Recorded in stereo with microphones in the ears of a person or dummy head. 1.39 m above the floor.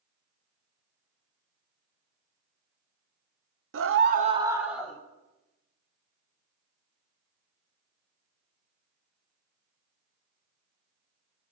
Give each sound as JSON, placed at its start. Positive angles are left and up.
{"t": 3.7, "sound": "a scream", "side_deg": -65, "distance_m": 0.6}